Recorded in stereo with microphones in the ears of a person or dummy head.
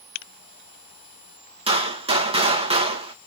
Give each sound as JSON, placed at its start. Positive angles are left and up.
{"t": 1.7, "sound": "a gunshot", "side_deg": -30, "distance_m": 1.8}